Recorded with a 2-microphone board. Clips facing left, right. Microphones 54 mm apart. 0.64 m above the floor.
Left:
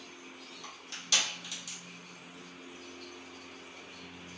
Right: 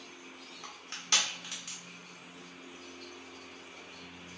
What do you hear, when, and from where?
0.6 s crushing: 40° right (ahead or behind), 1.2 m